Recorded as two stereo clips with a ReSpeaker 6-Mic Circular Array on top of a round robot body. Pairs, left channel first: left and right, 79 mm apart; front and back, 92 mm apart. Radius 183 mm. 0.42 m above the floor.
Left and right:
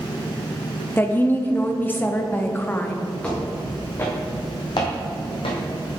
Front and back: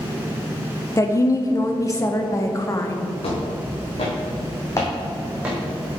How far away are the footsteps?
About 2.5 m.